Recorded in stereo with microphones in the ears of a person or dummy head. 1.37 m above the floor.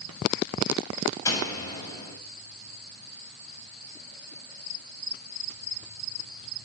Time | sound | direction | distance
1.2 | a door slam | 20° left (ahead or behind) | 6.5 m